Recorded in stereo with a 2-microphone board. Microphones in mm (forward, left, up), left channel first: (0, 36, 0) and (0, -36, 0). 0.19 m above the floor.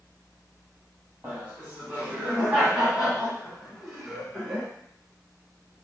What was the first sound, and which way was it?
Laughter, 20° right (ahead or behind).